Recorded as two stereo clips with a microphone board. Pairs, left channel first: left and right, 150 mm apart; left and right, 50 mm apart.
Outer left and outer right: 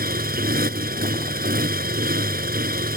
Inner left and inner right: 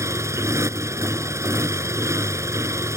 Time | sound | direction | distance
0.0 | a motorcycle | 80° right | ?